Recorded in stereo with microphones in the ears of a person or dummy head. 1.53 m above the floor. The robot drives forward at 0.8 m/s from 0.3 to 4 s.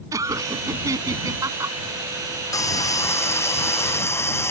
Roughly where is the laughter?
Centre.